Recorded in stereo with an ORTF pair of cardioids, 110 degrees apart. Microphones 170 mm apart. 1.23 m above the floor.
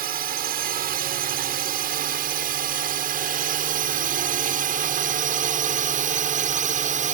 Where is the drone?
65° right; by 7.1 s 50° right.